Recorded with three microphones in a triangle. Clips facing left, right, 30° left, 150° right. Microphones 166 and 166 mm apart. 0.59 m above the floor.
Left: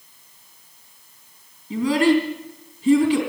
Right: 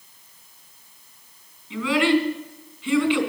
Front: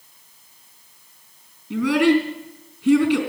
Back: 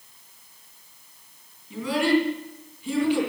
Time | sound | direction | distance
1.7 | a child speaking | 40° left | 3 m